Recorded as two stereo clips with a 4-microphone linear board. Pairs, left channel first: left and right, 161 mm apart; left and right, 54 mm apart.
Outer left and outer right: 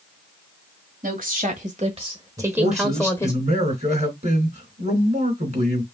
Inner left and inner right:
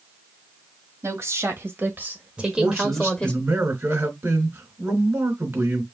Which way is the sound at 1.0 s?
55° right (ahead or behind).